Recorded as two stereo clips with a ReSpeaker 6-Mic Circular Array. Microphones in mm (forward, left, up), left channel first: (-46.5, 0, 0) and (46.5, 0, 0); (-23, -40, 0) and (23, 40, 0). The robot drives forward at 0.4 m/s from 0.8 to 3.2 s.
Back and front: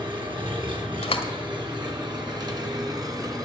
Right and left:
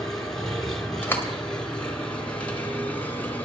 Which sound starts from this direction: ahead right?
An engine running, at 0.0 s.